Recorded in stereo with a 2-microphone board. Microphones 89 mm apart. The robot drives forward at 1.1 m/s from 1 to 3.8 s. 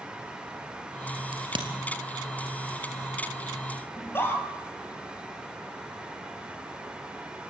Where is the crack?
65° right (ahead or behind), 3 m.